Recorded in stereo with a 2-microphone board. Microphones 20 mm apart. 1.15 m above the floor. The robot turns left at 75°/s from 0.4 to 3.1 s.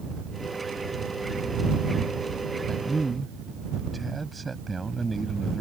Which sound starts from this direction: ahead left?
A man speaking, at 2.7 s.